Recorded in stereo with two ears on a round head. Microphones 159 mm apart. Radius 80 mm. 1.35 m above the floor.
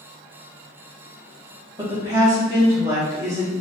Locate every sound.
1.8 s a woman speaking: 20° right (ahead or behind), 1.8 m